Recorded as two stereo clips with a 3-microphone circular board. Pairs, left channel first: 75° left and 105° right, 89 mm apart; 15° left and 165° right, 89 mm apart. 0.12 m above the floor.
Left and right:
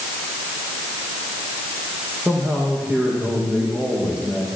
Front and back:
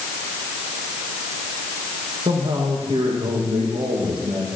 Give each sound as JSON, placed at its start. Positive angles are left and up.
{"t": 2.2, "sound": "a man speaking", "azimuth_deg": 175, "distance_m": 7.5}